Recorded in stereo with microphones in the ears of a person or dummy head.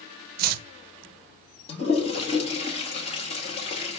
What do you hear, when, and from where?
0.4 s chopping: 50° right (ahead or behind), 0.7 m
1.7 s a toilet flushing: 30° left (ahead or behind), 1.3 m